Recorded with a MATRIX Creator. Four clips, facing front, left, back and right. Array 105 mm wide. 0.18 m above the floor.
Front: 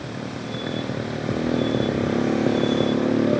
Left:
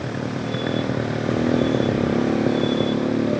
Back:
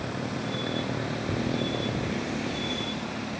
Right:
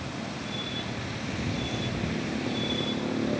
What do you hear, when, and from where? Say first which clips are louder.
0.0 s a motorcycle: left 9 dB, front 1 dB; 90° left; by 3.4 s 20° left